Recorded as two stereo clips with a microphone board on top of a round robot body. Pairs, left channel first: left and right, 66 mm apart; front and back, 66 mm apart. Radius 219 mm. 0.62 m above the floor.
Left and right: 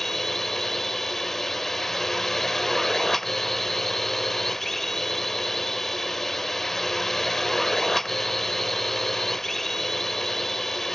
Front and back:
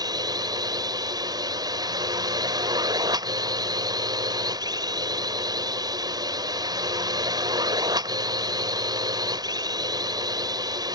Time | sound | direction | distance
0.0 | a drone | 175° left | ?